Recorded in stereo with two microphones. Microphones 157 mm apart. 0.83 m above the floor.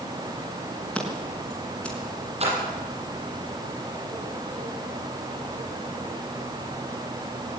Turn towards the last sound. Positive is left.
turn(degrees=-40)  # may be behind; listen again after turning